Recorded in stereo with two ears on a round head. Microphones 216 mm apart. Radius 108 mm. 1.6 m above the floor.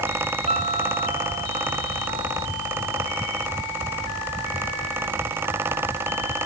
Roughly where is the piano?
Right.